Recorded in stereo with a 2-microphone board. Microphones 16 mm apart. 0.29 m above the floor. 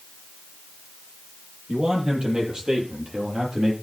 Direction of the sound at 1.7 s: 65° right (ahead or behind).